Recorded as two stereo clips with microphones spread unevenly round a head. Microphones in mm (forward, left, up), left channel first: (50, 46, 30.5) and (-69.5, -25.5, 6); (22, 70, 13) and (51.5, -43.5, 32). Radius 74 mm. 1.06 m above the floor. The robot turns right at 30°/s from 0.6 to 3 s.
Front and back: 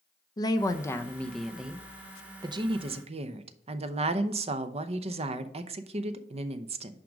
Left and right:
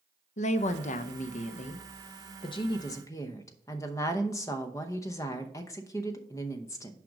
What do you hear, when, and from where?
0.4 s a woman speaking: 95° left, 0.7 m; by 7.1 s 170° left, 0.7 m